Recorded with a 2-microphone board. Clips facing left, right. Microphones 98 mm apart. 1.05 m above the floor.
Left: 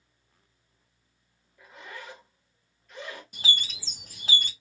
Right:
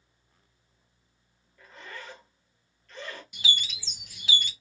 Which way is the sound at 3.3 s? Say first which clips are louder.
Left 1 dB; 40° left (ahead or behind).